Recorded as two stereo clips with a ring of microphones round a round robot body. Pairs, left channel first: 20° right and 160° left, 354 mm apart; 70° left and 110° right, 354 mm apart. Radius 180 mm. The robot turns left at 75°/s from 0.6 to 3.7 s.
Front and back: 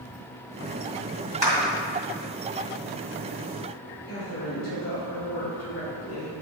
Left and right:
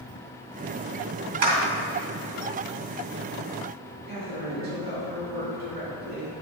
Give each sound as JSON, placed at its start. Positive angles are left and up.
{"t": 1.4, "sound": "a clap", "azimuth_deg": -120, "distance_m": 2.5}
{"t": 4.1, "sound": "a woman speaking", "azimuth_deg": -55, "distance_m": 2.5}